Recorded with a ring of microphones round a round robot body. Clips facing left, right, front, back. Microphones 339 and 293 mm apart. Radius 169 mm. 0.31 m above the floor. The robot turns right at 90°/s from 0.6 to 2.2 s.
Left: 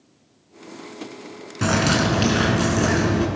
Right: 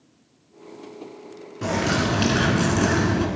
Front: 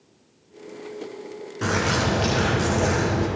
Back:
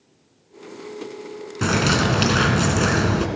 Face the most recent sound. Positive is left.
turn(degrees=-175)